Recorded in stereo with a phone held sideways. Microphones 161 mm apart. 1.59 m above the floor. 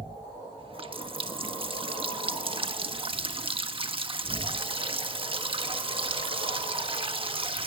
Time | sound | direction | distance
0.6 | a running tap | 35° right (ahead or behind) | 1.4 m